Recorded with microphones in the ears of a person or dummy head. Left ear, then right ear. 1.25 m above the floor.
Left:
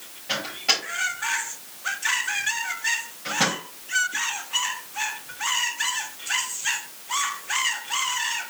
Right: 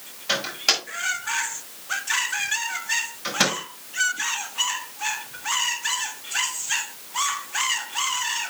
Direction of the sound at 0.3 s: 25° right (ahead or behind).